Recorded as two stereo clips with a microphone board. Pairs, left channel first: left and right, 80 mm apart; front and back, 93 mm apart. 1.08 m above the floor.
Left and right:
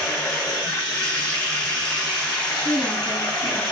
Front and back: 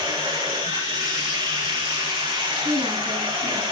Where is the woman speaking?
175° left, 9.5 m.